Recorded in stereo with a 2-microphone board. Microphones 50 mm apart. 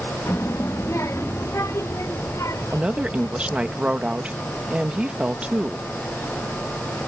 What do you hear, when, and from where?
0.3 s a child speaking: 60° left (ahead or behind); by 3.7 s 75° left (ahead or behind)
2.7 s a woman speaking: 25° right (ahead or behind)